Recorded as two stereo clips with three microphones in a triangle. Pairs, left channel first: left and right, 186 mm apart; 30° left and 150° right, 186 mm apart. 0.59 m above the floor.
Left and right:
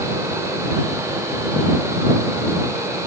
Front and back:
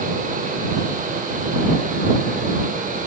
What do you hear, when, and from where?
Only background noise.